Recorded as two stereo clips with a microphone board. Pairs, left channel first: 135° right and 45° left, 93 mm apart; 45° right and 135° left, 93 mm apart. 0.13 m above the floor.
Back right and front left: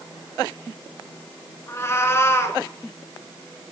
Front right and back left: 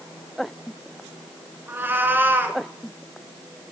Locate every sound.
1.7 s a cat meowing: 170° right, 1.0 m